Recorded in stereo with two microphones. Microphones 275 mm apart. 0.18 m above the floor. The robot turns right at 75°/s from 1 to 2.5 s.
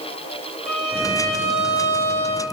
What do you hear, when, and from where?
0.7 s a violin: straight behind, 4.5 m; by 2.4 s 75° right, 4.5 m